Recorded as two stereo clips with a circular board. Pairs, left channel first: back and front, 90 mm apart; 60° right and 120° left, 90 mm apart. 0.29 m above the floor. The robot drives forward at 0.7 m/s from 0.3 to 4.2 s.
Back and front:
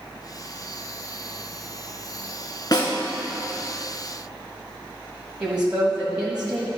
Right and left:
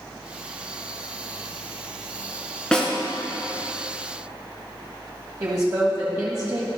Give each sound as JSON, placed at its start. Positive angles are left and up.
{"t": 2.7, "sound": "a snare drum", "azimuth_deg": -140, "distance_m": 1.8}
{"t": 5.4, "sound": "a woman speaking", "azimuth_deg": 75, "distance_m": 1.6}